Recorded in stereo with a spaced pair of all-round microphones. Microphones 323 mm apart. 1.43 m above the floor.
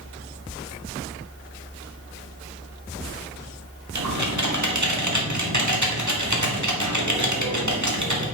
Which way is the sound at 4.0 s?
65° right (ahead or behind).